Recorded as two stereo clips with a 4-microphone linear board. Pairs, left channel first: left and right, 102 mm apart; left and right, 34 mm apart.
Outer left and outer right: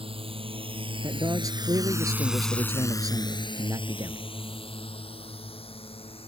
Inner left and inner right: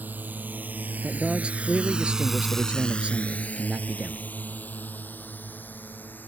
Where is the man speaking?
35° right (ahead or behind).